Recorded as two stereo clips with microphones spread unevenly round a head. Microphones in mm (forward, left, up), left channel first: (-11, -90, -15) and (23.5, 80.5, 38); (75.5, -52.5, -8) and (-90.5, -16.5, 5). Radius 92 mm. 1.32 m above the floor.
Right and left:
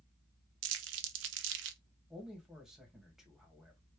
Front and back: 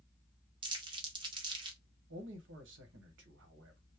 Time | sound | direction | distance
0.6 | crumpling | 100° left | 0.5 m
2.1 | a man speaking | 170° left | 1.0 m